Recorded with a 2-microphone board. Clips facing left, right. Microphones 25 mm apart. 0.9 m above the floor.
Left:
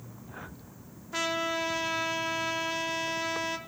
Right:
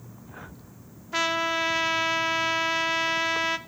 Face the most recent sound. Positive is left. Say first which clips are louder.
# right 5 dB
turn(degrees=-25)  # may be behind; listen again after turning